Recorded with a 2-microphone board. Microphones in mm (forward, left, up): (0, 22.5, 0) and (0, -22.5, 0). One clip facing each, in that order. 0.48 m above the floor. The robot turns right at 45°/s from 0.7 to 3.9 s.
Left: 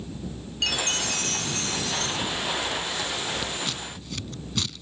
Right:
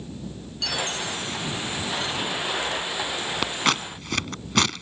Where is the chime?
50° left; by 2.2 s 115° left.